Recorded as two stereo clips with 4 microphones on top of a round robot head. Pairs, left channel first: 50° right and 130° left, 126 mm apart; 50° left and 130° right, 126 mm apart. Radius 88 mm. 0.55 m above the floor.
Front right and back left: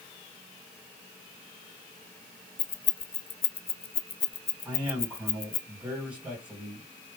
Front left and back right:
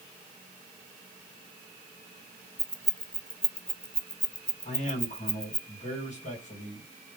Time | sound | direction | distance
2.6 | keys jangling | 35° right | 0.6 m
4.7 | a man speaking | 55° left | 2.5 m